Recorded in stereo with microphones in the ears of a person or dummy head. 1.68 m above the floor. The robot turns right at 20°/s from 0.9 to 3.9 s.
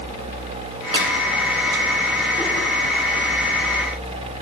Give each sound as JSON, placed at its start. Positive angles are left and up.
{"t": 0.9, "sound": "a clap", "side_deg": -35, "distance_m": 3.5}